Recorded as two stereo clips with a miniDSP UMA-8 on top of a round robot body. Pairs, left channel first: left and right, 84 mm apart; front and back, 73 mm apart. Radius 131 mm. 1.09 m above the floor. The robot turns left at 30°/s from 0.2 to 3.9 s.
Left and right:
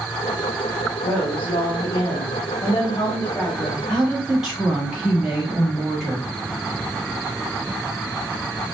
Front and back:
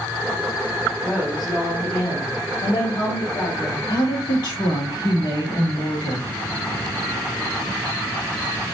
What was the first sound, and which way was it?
A woman speaking, 95° left.